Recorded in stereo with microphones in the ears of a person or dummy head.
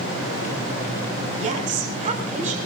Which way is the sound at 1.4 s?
40° right (ahead or behind).